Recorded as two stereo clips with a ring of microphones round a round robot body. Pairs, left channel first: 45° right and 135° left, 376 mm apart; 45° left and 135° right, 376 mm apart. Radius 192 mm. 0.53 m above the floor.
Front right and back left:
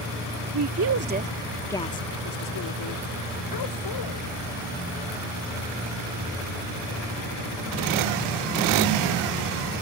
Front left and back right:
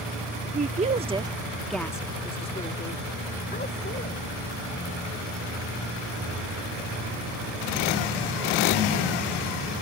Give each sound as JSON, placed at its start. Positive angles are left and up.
{"t": 0.5, "sound": "a woman speaking", "azimuth_deg": 160}